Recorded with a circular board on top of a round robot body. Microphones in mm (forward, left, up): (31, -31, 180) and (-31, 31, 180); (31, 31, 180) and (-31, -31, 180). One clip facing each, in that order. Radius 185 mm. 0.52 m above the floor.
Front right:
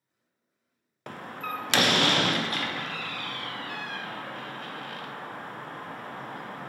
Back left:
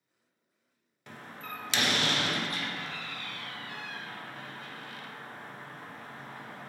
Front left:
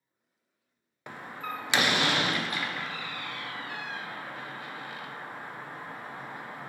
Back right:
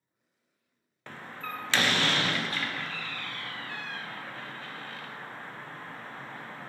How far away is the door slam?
About 0.6 m.